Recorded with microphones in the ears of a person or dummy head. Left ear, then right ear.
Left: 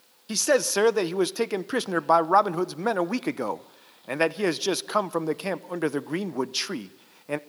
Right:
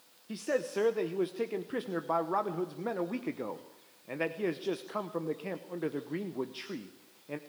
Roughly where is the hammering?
No hammering in this recording.